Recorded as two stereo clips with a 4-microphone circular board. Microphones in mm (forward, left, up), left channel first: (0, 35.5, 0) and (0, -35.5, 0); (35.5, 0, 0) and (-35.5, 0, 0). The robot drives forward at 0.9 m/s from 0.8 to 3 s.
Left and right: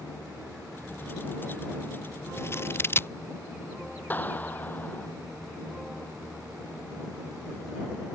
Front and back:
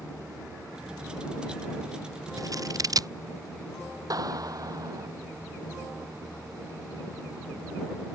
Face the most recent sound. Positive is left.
turn(degrees=155)